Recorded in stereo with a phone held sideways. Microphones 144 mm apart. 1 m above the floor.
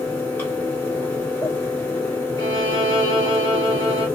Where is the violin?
25° left (ahead or behind), 1.4 m.